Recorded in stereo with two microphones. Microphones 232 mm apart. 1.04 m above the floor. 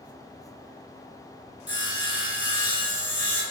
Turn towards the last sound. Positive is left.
turn(degrees=60)  # may be behind; listen again after turning